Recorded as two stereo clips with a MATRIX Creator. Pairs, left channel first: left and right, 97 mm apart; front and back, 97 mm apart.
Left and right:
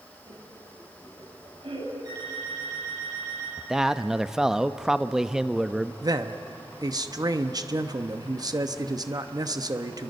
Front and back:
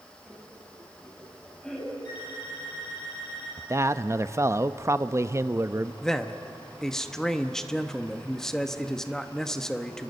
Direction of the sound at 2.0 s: 45° right.